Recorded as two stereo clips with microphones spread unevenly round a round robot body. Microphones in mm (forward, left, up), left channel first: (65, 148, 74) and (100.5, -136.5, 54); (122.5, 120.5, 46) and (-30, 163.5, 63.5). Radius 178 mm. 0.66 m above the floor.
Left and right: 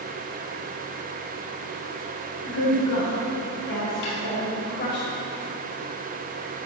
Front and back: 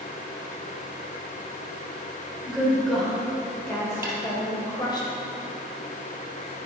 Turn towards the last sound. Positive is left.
turn(degrees=90)